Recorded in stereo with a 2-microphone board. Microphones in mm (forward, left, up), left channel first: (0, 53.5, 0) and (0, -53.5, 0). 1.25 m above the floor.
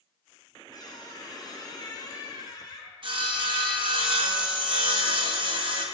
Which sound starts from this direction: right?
Sawing, at 3.0 s.